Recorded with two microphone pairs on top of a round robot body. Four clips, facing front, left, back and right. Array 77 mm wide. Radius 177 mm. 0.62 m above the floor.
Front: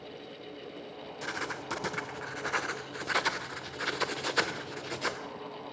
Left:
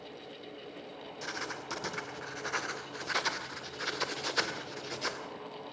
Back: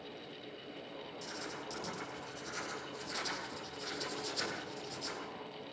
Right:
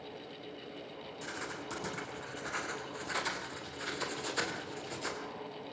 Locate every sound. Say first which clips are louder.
1.2 s writing: left 2 dB, front 10 dB; 15° left, 3 m